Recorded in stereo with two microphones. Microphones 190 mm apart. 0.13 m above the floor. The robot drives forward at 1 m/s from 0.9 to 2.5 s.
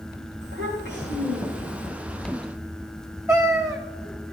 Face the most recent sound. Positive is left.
turn(degrees=-15)  # may be behind; listen again after turning